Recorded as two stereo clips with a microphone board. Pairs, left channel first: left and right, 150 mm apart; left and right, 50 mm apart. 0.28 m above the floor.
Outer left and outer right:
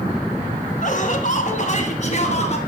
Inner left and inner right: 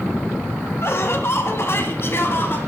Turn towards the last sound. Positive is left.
turn(degrees=45)  # may be behind; listen again after turning